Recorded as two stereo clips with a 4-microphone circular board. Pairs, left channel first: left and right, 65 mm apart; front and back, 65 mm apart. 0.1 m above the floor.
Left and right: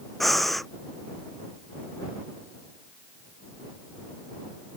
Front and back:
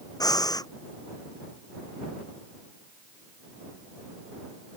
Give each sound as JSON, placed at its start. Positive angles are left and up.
{"t": 0.2, "sound": "breathing", "azimuth_deg": 0}